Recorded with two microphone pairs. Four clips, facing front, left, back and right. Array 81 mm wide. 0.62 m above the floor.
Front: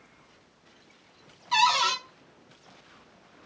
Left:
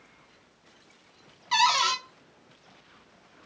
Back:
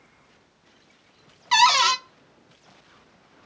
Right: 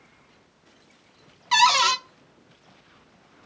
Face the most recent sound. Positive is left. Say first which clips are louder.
# right 5 dB, back 5 dB
turn(degrees=-150)